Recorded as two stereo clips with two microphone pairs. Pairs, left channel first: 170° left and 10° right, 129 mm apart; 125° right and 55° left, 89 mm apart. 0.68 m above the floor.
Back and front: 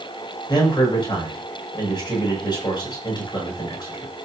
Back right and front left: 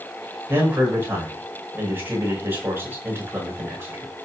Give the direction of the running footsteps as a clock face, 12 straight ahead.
I don't hear running footsteps.